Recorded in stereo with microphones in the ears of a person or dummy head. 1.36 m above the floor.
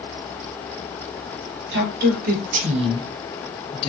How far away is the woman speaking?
About 1.6 m.